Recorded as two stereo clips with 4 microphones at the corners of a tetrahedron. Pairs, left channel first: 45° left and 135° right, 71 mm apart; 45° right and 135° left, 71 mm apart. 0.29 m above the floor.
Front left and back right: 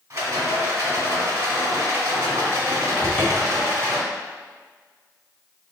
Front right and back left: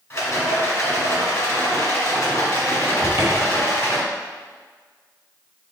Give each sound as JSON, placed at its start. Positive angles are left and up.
{"t": 0.1, "sound": "a rattle", "azimuth_deg": -90, "distance_m": 1.5}
{"t": 3.0, "sound": "a cupboard door", "azimuth_deg": 95, "distance_m": 1.0}